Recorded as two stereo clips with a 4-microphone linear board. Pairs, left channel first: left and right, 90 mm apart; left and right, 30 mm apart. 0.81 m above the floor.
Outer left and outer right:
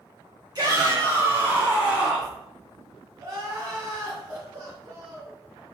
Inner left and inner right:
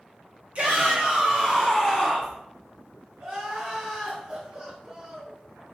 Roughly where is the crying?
Right.